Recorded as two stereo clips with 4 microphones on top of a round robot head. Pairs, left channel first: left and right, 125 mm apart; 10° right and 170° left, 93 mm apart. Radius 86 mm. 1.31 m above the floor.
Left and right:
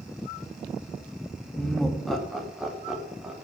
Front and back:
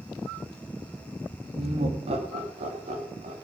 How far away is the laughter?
About 2.5 m.